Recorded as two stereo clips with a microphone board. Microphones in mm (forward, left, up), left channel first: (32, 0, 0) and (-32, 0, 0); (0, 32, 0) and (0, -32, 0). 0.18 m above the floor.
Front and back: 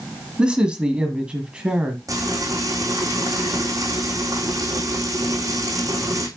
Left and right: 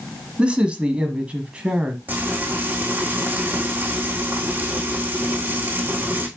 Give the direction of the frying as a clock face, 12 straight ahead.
5 o'clock.